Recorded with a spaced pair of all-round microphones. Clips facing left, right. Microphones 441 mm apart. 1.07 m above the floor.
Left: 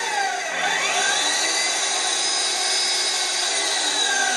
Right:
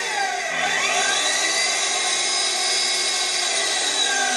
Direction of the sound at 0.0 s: 45° right (ahead or behind).